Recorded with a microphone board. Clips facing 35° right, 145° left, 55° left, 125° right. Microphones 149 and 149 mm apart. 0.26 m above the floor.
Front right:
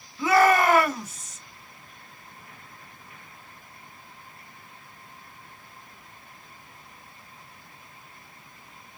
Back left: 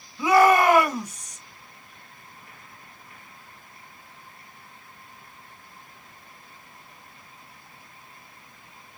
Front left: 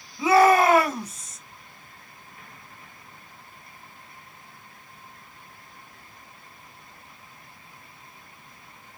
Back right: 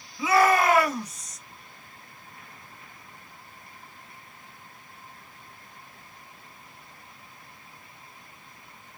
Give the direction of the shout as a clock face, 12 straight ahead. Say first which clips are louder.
Back left 2 dB, front left 4 dB; 9 o'clock.